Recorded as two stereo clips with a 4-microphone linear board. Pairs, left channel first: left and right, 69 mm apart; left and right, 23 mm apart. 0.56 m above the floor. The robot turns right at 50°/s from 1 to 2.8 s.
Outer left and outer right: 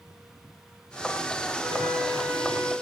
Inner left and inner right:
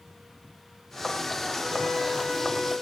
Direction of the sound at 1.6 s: 125° left.